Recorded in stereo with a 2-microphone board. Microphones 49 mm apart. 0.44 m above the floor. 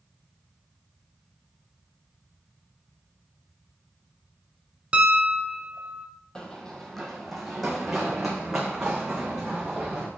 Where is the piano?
20° right (ahead or behind), 0.8 m.